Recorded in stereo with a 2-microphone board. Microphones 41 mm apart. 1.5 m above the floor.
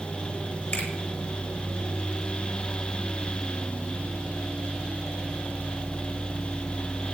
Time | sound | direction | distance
0.7 | a finger snap | 55° left (ahead or behind) | 8.5 m